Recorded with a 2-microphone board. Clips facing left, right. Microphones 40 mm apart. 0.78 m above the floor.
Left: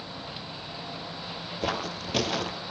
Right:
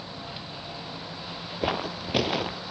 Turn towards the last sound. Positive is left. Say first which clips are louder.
# right 2 dB
turn(degrees=-15)  # may be behind; listen again after turning